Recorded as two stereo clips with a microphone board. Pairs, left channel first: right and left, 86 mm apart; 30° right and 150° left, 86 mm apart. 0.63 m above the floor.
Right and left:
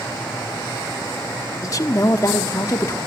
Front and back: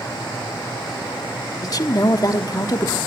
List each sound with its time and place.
1.6 s a woman speaking: 55° right, 1.1 m